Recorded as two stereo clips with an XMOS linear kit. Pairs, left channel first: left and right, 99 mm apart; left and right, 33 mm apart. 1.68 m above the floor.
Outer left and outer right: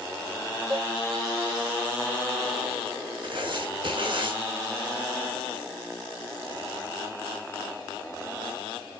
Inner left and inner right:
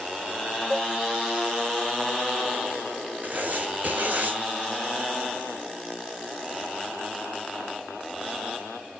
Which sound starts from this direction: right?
Writing, at 3.2 s.